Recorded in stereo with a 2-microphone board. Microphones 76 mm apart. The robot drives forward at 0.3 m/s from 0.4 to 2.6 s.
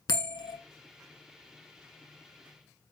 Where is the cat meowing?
No cat meowing in this recording.